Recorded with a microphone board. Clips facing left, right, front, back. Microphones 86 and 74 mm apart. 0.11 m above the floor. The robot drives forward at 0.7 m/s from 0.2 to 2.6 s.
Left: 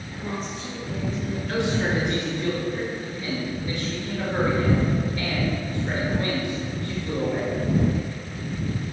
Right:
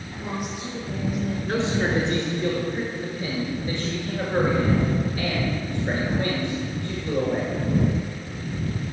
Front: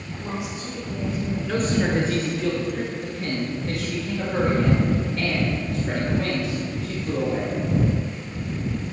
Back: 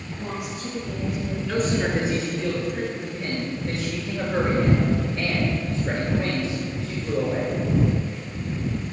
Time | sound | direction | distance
0.1 | a woman speaking | 165° right | 2.5 m
1.5 | a man speaking | 90° right | 1.5 m